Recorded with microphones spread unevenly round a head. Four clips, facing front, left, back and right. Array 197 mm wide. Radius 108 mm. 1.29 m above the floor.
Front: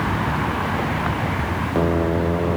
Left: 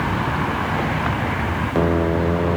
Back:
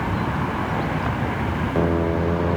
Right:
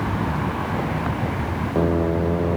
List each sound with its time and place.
Only background noise.